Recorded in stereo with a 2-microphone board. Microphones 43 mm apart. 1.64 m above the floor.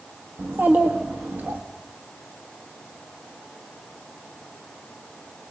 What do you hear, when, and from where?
0.4 s a child speaking: 55° right (ahead or behind), 1.5 m